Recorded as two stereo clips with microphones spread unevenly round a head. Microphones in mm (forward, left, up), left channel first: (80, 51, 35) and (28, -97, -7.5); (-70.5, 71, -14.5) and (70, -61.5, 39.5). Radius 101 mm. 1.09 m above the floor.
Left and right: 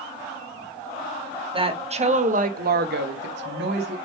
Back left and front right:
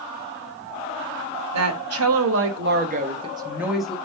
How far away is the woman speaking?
About 1.9 m.